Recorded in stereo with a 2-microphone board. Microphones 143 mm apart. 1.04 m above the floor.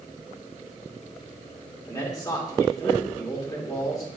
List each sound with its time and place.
1.9 s a man speaking: 25° left (ahead or behind), 2.5 m